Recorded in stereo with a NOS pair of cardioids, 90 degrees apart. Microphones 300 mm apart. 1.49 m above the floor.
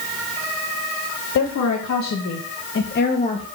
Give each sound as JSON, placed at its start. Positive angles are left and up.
{"t": 1.4, "sound": "a woman speaking", "azimuth_deg": 65, "distance_m": 3.5}